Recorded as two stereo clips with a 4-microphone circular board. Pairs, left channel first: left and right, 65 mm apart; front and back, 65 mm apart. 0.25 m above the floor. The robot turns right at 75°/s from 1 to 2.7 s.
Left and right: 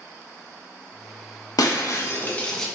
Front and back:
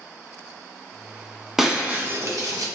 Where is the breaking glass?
95° left, 0.5 m; by 2.7 s 175° left, 0.5 m.